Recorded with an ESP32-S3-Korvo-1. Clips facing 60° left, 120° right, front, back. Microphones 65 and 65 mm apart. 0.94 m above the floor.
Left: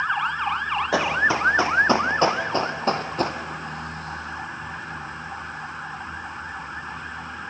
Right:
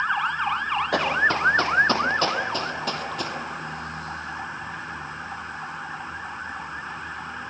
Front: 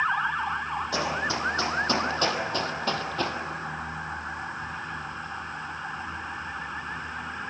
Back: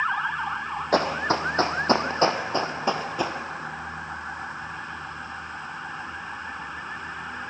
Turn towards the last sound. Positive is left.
turn(degrees=105)